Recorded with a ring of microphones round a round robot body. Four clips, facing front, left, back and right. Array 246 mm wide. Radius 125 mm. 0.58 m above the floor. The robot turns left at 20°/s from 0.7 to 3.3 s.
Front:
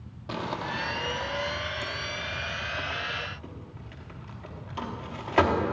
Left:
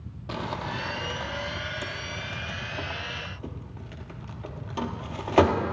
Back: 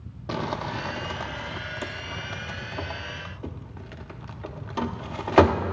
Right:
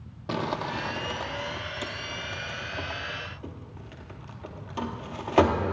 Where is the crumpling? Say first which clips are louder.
Right 3 dB, back 3 dB; 135° right, 1.0 m; by 5.7 s 170° left, 1.0 m.